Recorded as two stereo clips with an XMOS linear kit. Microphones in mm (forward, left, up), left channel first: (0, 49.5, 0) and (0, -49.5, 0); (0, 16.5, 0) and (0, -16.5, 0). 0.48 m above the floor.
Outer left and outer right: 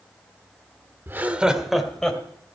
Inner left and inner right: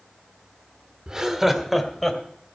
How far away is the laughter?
About 1.4 m.